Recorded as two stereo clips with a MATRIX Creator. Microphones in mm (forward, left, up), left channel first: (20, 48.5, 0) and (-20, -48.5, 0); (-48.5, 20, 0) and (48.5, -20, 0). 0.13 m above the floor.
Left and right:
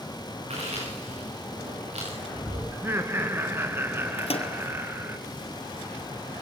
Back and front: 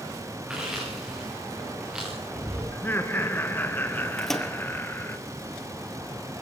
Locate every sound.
0.5 s chewing: 105° right, 9 m
2.7 s laughter: 155° right, 1.6 m
4.2 s a microwave: 70° left, 2.5 m